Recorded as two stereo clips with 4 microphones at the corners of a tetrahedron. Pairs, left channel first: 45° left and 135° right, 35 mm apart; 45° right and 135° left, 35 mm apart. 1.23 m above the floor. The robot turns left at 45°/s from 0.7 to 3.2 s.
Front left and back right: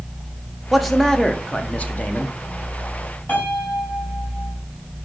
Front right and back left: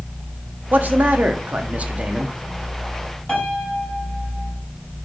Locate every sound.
0.7 s a man speaking: 145° left, 0.6 m; by 2.4 s 70° left, 0.6 m
3.3 s a piano: 20° left, 2 m